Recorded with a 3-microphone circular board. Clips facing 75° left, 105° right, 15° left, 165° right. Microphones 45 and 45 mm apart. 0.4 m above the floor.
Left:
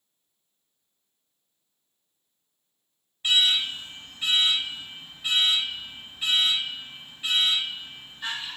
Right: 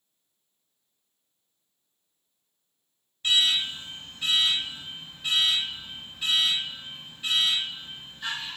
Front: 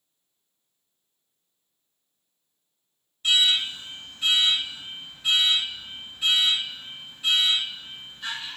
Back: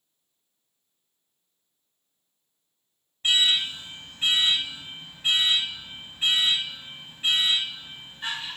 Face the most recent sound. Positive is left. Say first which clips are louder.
# left 1 dB, front 1 dB
turn(degrees=150)